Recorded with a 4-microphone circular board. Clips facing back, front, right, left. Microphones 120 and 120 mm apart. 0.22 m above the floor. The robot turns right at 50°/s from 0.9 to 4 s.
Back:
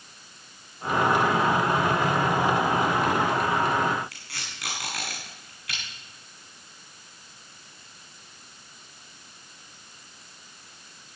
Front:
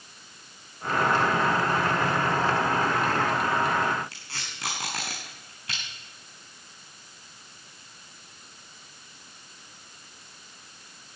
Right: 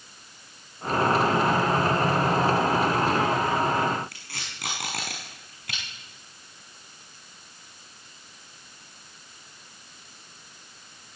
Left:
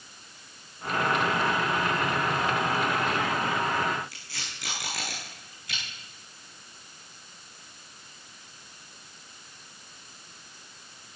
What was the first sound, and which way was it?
Tape being pulled, 65° right.